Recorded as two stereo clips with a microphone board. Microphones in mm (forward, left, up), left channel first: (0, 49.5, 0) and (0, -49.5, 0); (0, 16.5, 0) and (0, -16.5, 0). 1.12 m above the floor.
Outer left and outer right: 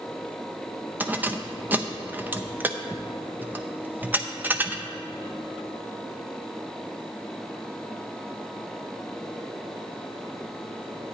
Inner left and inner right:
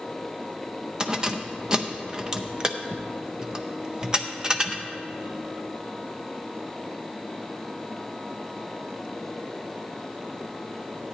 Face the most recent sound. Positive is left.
turn(degrees=-20)  # may be behind; listen again after turning